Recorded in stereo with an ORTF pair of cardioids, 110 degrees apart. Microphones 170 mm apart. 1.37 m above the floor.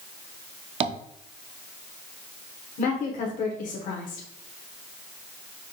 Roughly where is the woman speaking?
Ahead left.